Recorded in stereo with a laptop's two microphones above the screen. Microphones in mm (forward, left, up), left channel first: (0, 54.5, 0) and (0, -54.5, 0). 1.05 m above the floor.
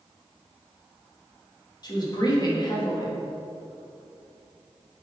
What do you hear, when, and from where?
1.8 s a woman speaking: 40° left (ahead or behind), 1.3 m